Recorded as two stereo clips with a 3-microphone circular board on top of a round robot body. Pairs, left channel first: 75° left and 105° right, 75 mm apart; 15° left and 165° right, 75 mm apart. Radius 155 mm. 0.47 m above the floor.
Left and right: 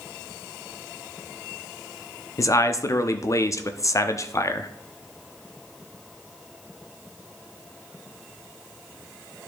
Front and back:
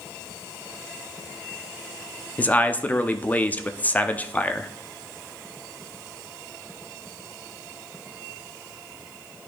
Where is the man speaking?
75° left, 0.8 m.